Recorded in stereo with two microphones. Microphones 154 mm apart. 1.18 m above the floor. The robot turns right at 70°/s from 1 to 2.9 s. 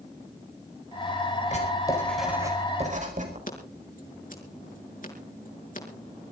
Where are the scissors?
55° left (ahead or behind), 5 m.